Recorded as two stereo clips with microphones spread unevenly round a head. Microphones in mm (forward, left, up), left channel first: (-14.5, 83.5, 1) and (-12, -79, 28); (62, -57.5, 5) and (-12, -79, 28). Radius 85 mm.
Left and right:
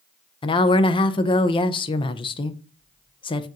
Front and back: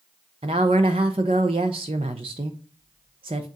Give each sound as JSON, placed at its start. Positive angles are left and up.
{"t": 0.4, "sound": "a woman speaking", "azimuth_deg": 155, "distance_m": 0.5}